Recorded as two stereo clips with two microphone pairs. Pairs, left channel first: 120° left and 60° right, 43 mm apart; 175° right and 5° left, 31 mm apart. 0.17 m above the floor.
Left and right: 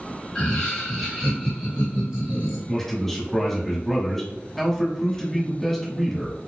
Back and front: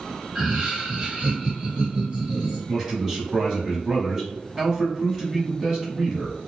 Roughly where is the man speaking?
Ahead left.